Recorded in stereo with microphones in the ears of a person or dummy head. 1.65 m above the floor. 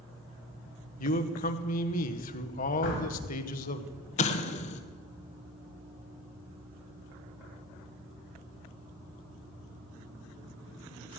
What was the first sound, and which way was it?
A man speaking, 45° left (ahead or behind).